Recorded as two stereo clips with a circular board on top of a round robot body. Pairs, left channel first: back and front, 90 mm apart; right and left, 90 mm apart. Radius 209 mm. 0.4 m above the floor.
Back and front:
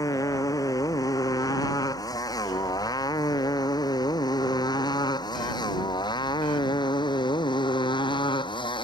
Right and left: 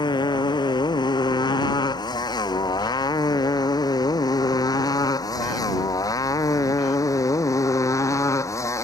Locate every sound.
0.0 s a motorcycle: 130° right; by 8.8 s 150° right